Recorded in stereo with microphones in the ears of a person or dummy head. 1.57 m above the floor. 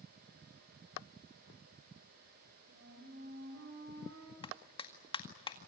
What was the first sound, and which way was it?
A flute, 65° right (ahead or behind).